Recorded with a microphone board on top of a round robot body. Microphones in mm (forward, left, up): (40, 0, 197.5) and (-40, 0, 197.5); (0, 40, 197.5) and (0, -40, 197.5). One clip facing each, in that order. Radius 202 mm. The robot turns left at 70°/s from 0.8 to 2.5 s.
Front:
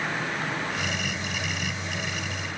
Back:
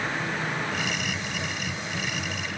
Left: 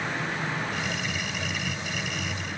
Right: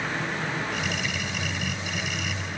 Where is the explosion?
No explosion in this recording.